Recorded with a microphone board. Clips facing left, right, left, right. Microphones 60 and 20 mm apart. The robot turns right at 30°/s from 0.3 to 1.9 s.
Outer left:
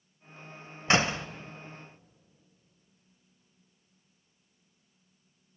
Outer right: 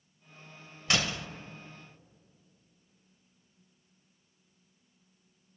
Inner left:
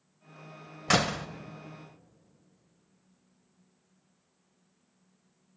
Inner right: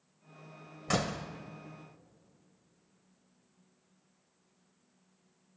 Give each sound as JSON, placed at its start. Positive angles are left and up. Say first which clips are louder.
{"t": 0.9, "sound": "a door slam", "louder": "outer left 5 dB, inner left 6 dB", "side_deg": 35, "distance_m": 0.7}